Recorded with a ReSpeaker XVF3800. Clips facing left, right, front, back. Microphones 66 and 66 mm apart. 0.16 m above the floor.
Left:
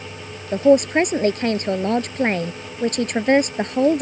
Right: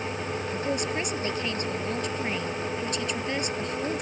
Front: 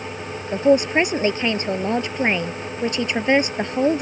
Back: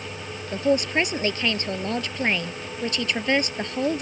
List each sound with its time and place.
0.5 s a man speaking: 65° left